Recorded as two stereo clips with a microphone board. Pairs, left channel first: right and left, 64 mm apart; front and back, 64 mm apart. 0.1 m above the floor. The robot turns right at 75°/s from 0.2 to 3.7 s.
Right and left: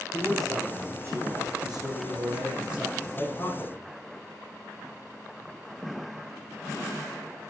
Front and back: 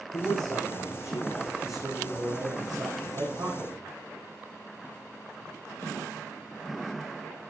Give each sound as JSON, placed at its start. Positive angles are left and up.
{"t": 0.1, "sound": "a man speaking", "azimuth_deg": -20, "distance_m": 6.5}